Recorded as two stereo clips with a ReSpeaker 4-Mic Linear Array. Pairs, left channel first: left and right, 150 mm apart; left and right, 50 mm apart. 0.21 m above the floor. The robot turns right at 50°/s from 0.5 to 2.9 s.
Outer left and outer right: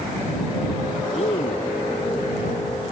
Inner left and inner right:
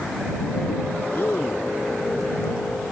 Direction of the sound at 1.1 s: 40° left (ahead or behind).